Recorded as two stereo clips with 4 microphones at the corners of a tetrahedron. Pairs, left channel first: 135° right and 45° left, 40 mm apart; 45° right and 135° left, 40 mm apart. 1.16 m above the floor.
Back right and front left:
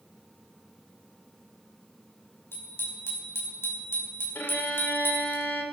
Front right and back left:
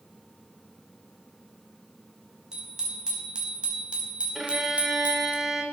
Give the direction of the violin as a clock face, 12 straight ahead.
5 o'clock.